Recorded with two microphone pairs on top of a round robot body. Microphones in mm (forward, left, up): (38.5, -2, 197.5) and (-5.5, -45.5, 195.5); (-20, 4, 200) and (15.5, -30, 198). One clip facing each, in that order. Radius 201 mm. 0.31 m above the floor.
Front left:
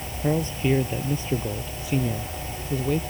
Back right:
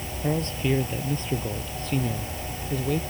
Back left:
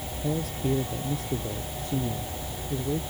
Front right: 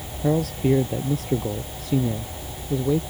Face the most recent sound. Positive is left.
turn(degrees=-40)